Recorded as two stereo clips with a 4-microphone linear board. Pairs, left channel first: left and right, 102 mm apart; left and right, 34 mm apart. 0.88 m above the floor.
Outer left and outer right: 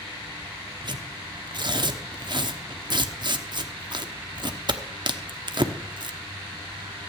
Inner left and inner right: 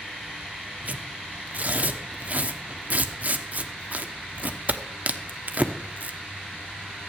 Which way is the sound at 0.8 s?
50° right (ahead or behind).